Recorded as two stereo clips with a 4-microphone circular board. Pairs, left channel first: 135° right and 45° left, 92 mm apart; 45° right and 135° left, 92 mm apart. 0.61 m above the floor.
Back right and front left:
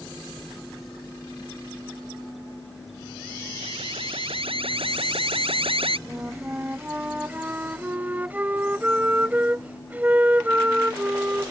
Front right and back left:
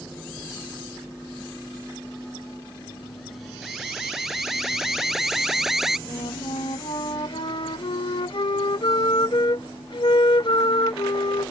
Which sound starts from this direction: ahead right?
A flute, at 6.1 s.